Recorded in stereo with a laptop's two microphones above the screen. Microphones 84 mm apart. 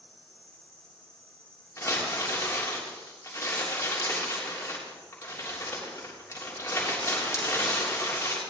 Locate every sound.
0.0 s an insect: 15° left (ahead or behind), 4 m
1.8 s crumpling: 35° left (ahead or behind), 3.5 m